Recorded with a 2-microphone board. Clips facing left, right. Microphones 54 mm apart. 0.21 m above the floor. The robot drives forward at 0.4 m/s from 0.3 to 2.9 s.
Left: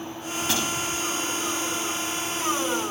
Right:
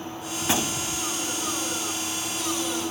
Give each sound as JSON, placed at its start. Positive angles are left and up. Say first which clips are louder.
{"t": 0.4, "sound": "a gunshot", "louder": "even", "side_deg": -25, "distance_m": 0.7}